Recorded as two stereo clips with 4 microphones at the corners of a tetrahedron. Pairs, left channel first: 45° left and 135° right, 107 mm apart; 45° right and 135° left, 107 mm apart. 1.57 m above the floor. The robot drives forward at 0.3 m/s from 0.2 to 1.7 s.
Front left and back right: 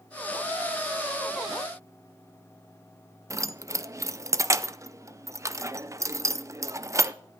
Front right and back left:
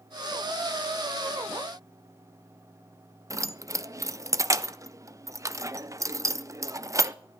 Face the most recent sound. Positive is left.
turn(degrees=180)